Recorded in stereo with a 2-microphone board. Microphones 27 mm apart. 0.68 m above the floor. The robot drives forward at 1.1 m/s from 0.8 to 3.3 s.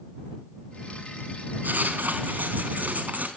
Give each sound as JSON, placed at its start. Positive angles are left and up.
{"t": 1.6, "sound": "writing", "side_deg": -85, "distance_m": 4.0}